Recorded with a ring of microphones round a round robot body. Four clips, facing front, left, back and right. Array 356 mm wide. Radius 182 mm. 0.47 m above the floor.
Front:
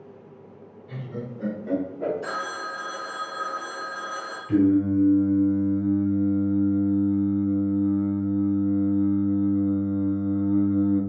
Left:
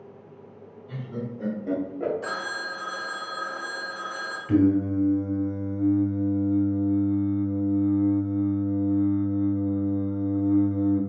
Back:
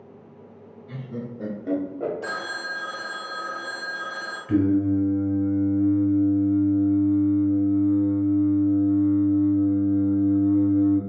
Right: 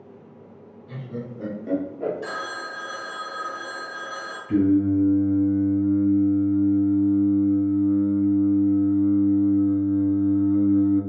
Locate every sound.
0.9 s laughter: 115° right, 1.6 m; by 2.1 s 150° left, 1.4 m
2.2 s a phone ringing: 150° right, 1.9 m
4.5 s singing: 115° left, 1.2 m